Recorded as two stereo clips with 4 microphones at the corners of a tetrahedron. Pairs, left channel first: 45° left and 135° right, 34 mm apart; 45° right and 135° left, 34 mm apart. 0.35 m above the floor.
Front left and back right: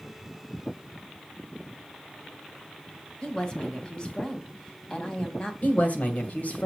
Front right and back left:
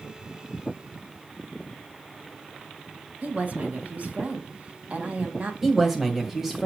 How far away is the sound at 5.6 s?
About 2 m.